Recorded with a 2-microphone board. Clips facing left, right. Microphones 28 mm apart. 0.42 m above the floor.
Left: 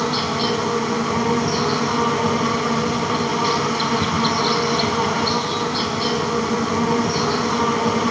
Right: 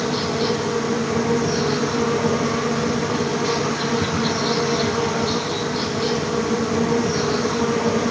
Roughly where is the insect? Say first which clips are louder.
Left 1 dB; left.